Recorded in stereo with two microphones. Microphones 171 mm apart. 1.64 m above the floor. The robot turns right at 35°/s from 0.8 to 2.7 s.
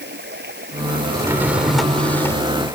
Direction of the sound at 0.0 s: 80° right.